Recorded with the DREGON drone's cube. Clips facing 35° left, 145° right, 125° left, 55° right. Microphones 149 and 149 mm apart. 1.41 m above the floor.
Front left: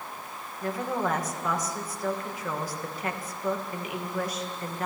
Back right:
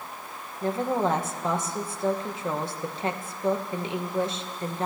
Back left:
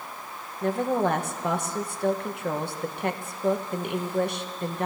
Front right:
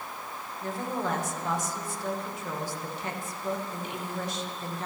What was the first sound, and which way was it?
A woman speaking, 150° left.